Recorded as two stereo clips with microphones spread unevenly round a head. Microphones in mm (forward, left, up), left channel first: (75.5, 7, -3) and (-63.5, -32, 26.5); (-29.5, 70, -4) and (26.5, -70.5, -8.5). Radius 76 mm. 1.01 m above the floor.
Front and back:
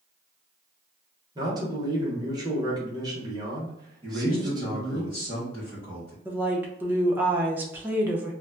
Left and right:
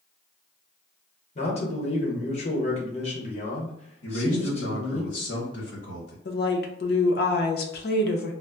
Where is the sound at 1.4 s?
130° left, 1.0 m.